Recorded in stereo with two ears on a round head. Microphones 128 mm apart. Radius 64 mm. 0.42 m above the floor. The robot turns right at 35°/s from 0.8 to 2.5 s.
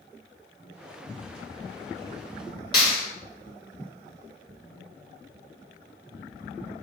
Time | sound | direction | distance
2.7 | a clap | 30° left (ahead or behind) | 1.8 m